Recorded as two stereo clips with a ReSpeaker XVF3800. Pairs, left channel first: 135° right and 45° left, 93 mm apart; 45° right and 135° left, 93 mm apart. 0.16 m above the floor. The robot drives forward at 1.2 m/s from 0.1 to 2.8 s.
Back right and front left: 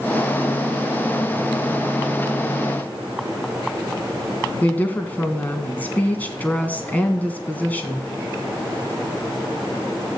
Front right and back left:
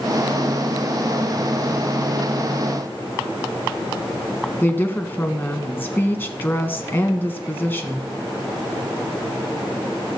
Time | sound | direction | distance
4.6 | a woman speaking | 85° right | 1.5 m